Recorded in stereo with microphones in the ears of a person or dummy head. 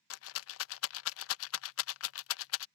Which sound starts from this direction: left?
A rattle, at 0.1 s.